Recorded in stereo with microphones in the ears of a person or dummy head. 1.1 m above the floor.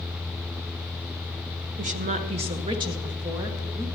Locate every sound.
1.8 s a woman speaking: 40° right (ahead or behind), 0.7 m; by 3.9 s 15° right (ahead or behind), 1.5 m